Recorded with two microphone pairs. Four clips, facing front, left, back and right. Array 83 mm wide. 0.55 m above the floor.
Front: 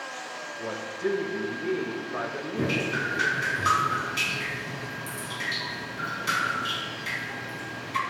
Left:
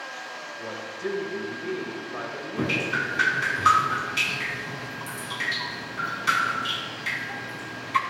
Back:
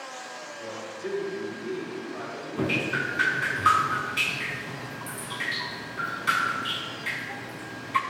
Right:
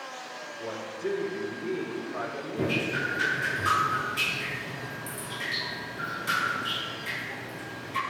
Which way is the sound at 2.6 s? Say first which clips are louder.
Left 2 dB, back 1 dB; 115° left.